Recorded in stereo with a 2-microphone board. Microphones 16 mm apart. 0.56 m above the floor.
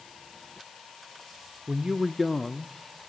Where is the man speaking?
55° right (ahead or behind), 1.0 m; by 2.8 s 40° left (ahead or behind), 0.9 m.